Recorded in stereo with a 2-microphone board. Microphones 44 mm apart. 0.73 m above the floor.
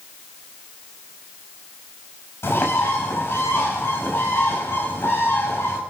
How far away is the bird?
About 5 m.